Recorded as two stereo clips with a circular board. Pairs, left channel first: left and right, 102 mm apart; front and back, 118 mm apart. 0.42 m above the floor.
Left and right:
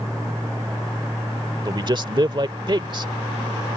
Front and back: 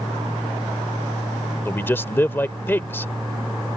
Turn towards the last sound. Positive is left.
turn(degrees=-65)